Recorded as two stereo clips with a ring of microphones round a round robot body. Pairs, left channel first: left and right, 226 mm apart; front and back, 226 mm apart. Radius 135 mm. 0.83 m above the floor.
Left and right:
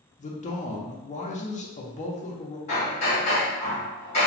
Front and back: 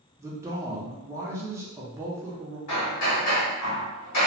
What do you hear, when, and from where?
0.2 s a man speaking: 115° left, 0.5 m
2.7 s hammering: 25° left, 0.8 m